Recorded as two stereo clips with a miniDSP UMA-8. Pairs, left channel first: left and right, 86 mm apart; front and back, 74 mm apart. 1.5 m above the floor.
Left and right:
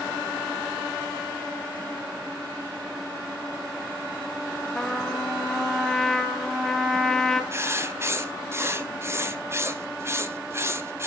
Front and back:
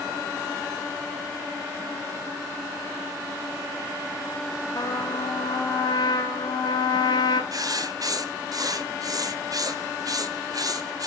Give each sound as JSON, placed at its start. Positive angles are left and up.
{"t": 4.8, "sound": "a trumpet", "azimuth_deg": 5, "distance_m": 0.9}
{"t": 7.5, "sound": "writing", "azimuth_deg": -150, "distance_m": 0.6}